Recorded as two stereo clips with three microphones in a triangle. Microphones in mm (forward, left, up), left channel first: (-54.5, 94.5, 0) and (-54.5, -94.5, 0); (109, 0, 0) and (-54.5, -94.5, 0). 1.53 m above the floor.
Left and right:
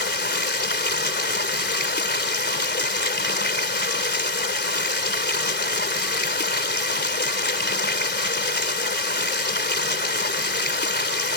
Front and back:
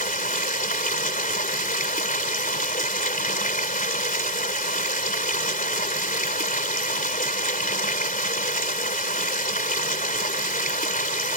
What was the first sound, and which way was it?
Running water, 70° left.